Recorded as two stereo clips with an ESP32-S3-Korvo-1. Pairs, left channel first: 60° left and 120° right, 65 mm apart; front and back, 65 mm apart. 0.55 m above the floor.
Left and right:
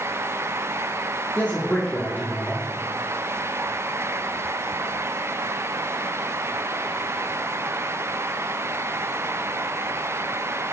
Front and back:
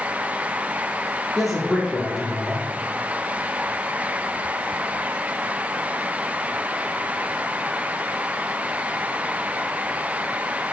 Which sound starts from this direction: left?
A man speaking, at 1.4 s.